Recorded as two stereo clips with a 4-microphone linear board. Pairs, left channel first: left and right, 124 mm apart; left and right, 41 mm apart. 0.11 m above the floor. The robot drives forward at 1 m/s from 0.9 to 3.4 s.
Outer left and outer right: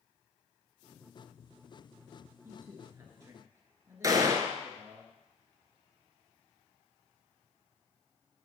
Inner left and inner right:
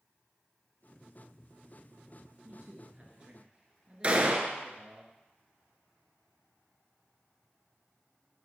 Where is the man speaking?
25° right (ahead or behind), 1.2 m.